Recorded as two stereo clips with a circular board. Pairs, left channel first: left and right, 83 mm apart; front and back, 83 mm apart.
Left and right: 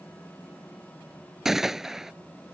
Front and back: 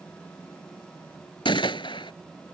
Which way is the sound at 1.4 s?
5° right.